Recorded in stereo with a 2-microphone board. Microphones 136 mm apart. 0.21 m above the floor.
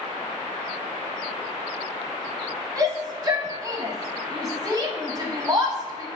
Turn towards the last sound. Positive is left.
turn(degrees=-30)  # may be behind; listen again after turning